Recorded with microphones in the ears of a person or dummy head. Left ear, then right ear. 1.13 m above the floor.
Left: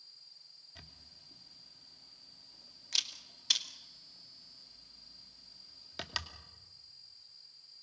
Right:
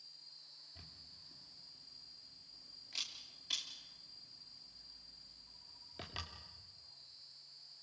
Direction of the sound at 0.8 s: 50° left (ahead or behind).